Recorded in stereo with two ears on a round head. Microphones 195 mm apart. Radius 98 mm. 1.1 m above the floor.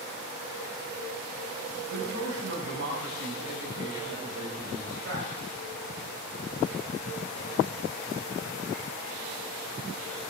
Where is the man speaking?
55° right (ahead or behind), 5.5 m.